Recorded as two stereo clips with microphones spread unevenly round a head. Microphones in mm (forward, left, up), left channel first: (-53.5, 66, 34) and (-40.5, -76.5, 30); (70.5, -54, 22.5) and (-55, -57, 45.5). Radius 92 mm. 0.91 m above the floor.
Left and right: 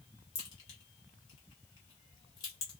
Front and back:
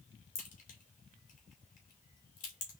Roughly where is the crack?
Ahead left.